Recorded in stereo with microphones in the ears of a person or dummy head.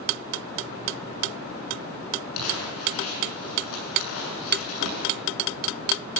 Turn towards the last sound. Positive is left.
turn(degrees=85)